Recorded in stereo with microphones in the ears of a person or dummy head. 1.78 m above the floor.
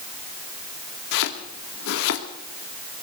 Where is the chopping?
65° left (ahead or behind), 2 m.